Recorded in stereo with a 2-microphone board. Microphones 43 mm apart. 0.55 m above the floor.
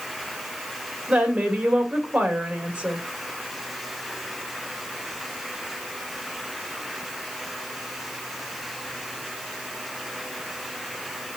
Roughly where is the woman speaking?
Right.